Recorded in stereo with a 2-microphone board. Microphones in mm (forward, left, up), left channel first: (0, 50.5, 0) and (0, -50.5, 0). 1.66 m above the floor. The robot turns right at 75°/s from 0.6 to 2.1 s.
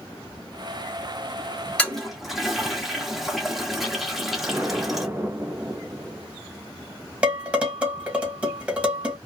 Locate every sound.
1.8 s a toilet flushing: 10° left (ahead or behind), 1.3 m; by 5.1 s centre (ahead or behind), 1.3 m
4.4 s an explosion: 25° right (ahead or behind), 0.6 m
7.2 s dishes clattering: 15° right (ahead or behind), 1.4 m